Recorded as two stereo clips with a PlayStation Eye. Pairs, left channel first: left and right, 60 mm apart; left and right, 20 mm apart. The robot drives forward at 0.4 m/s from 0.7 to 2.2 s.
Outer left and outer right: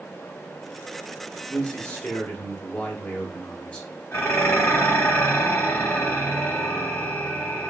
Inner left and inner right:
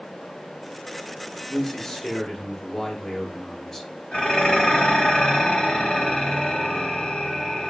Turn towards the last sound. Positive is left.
turn(degrees=40)  # may be behind; listen again after turning